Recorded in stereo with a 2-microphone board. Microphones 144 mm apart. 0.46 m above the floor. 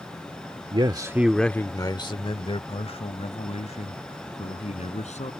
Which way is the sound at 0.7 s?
40° right (ahead or behind).